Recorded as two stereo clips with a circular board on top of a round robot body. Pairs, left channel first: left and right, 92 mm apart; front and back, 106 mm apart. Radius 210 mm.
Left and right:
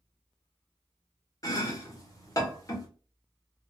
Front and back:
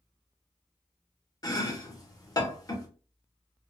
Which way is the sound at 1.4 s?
45° left.